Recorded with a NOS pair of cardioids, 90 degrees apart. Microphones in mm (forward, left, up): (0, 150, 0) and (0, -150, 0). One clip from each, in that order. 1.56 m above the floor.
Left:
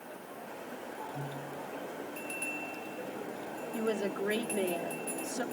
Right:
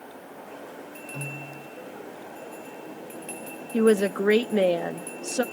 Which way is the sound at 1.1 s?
40° right.